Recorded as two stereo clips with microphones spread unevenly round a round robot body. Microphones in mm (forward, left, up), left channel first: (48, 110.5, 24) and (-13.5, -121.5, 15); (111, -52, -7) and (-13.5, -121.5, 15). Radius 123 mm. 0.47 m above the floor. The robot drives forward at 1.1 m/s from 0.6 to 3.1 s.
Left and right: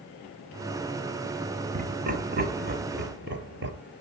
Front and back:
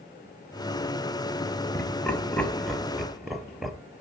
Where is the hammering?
No hammering in this recording.